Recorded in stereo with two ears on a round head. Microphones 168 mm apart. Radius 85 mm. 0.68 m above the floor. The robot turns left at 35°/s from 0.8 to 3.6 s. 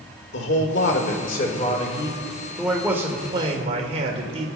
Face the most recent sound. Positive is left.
turn(degrees=-35)